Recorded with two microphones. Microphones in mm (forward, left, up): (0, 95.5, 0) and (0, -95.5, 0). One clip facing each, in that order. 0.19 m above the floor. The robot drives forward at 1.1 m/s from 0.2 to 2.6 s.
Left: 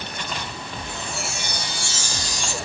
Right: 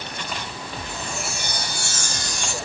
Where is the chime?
40° right (ahead or behind), 3.5 m; by 2.5 s 55° right (ahead or behind), 3 m.